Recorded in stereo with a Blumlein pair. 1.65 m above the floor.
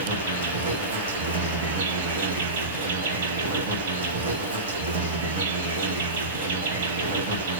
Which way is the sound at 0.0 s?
65° right.